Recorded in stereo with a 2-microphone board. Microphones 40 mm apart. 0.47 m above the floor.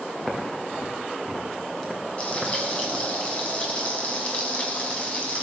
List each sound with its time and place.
0.2 s footsteps: 10° left (ahead or behind), 5.5 m; by 3.0 s centre (ahead or behind), 4 m
2.2 s frying: 30° left (ahead or behind), 4.5 m